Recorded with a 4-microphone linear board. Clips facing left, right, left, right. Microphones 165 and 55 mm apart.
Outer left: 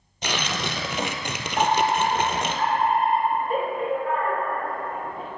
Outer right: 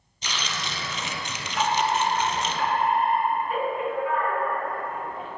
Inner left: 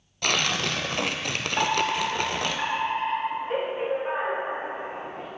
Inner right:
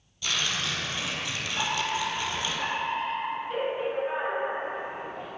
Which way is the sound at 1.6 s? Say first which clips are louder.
Outer left 3 dB, inner left 5 dB; 45° left (ahead or behind).